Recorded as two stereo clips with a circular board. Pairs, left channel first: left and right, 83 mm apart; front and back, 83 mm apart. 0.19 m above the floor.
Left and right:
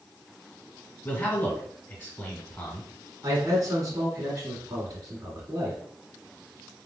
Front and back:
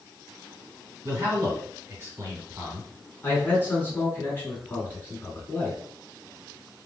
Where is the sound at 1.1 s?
140° left, 1.9 m.